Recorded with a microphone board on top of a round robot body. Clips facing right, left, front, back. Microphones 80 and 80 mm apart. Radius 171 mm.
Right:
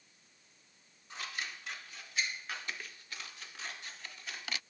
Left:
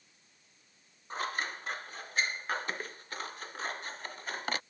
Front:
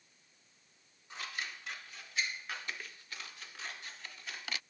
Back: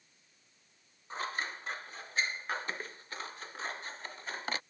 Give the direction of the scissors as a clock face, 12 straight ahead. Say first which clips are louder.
Left 7 dB, back 6 dB; 8 o'clock.